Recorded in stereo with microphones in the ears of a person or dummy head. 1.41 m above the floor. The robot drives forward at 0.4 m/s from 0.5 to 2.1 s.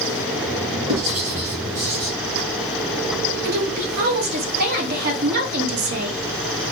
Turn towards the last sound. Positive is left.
turn(degrees=-50)  # may be behind; listen again after turning